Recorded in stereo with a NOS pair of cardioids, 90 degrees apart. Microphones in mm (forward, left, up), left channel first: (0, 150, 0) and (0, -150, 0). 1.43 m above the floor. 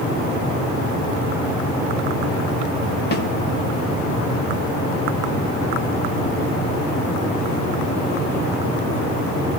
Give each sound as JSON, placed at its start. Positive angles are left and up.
{"t": 3.1, "sound": "a snare drum", "azimuth_deg": 35, "distance_m": 1.3}